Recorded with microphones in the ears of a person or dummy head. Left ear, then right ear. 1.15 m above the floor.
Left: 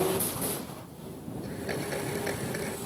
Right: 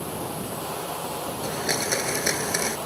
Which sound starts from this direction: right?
A blender, at 1.4 s.